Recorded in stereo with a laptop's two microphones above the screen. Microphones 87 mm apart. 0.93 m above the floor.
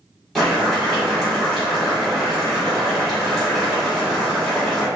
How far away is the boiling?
About 2.0 m.